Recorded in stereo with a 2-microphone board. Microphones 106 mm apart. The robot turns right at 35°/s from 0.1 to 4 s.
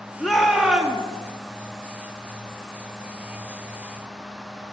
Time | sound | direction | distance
0.2 | a shout | 5° left (ahead or behind) | 0.8 m